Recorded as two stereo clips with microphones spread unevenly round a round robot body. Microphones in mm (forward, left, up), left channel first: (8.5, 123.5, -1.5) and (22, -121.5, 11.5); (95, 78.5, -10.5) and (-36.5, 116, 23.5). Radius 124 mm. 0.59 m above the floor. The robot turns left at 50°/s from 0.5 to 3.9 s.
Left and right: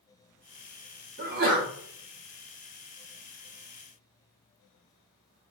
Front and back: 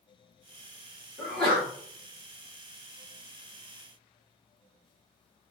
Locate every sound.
1.2 s a sneeze: 70° right, 1.0 m; by 1.7 s 95° right, 1.0 m